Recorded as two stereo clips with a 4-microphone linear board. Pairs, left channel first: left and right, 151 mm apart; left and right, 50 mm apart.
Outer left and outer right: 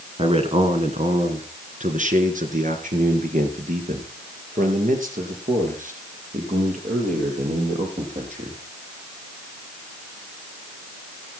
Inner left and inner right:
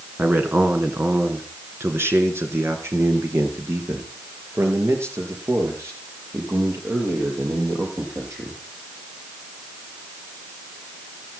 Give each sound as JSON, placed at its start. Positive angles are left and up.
{"t": 0.2, "sound": "a man speaking", "side_deg": -45, "distance_m": 2.0}